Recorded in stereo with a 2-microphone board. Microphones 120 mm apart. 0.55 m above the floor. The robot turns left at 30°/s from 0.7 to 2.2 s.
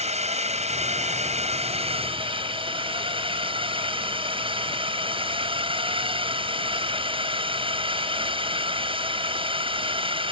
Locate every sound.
0.0 s a drone: 80° right; by 10.3 s 125° right